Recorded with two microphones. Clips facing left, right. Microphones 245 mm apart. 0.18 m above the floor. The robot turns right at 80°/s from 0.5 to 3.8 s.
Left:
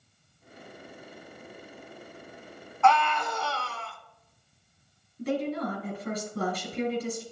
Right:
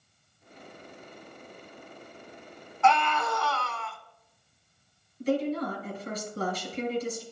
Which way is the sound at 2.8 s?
5° right.